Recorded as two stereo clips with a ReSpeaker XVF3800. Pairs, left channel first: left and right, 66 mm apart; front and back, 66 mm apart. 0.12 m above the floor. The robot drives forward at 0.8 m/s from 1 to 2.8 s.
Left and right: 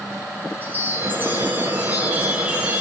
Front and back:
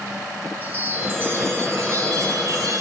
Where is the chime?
130° right, 1.8 m; by 2.8 s 155° right, 3 m.